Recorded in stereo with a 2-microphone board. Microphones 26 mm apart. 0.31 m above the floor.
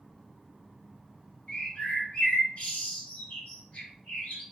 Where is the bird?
55° left (ahead or behind), 1.7 m.